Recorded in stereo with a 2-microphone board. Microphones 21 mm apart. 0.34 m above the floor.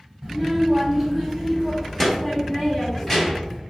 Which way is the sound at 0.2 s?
15° right (ahead or behind).